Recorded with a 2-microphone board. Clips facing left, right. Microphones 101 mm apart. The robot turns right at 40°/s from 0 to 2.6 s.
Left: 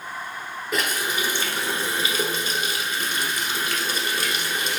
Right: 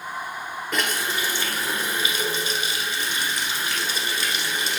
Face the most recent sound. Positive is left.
turn(degrees=80)